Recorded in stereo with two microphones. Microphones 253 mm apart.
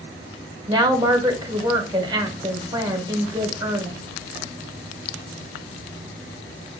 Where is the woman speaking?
20° right (ahead or behind), 1.0 m.